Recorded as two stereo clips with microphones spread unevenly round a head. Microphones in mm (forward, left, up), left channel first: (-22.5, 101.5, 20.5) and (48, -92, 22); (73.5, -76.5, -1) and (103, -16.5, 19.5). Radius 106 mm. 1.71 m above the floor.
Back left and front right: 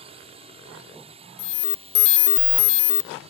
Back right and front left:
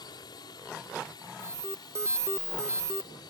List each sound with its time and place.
0.0 s a drone: 130° right
1.4 s an alarm: 140° left